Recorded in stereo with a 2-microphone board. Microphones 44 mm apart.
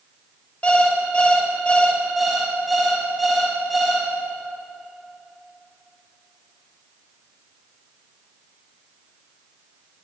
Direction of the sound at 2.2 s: Centre (ahead or behind).